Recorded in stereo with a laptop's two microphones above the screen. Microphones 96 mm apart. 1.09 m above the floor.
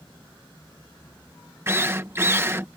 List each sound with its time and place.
1.7 s a drill: 25° right (ahead or behind)